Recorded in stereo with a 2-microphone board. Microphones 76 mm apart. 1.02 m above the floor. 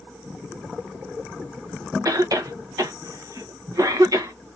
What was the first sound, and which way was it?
A cough, 50° right (ahead or behind).